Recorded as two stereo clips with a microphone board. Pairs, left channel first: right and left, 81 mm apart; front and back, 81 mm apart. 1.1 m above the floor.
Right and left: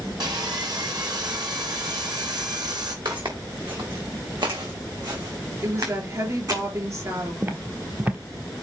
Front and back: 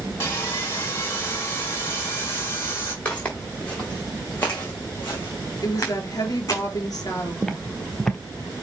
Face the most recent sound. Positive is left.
turn(degrees=75)